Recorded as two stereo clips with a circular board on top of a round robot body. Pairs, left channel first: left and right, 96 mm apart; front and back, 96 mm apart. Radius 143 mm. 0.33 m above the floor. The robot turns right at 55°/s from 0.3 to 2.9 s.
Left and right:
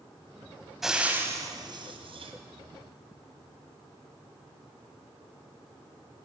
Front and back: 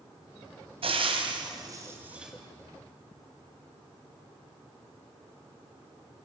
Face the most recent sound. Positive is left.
turn(degrees=-65)